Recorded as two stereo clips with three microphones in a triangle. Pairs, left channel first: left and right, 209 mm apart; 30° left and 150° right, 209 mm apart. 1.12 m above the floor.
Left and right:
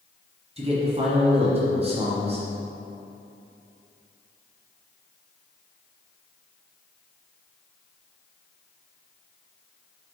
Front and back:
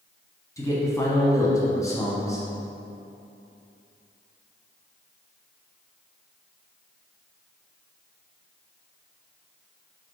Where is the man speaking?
40° right, 0.8 m.